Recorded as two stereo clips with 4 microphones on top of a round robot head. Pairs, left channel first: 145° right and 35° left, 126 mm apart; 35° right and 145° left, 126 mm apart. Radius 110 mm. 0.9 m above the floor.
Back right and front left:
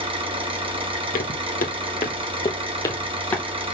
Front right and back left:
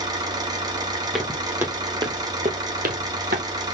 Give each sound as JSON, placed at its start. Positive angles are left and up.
{"t": 0.0, "sound": "an engine running", "azimuth_deg": 85, "distance_m": 2.5}
{"t": 1.1, "sound": "footsteps", "azimuth_deg": -130, "distance_m": 1.3}